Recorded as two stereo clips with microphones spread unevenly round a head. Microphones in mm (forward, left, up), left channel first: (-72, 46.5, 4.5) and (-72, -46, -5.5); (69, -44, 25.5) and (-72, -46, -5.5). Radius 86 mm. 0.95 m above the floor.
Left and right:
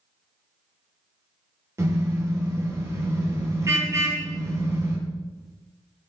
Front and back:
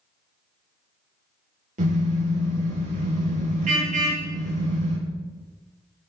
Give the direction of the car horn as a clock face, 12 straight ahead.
5 o'clock.